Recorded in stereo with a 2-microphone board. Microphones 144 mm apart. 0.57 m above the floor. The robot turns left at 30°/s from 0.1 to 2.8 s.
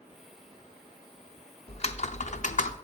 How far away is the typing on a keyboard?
About 0.6 m.